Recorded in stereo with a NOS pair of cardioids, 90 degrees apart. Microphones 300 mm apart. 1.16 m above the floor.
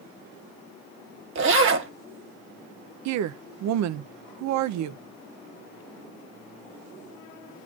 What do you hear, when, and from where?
1.4 s a zipper: 45° right, 1.5 m
3.0 s a woman speaking: 70° right, 0.6 m